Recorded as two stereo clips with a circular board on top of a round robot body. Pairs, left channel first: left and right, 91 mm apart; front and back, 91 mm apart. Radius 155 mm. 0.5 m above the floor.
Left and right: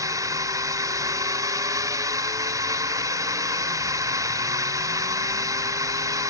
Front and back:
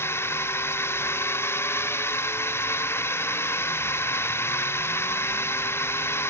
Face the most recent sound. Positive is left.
turn(degrees=-55)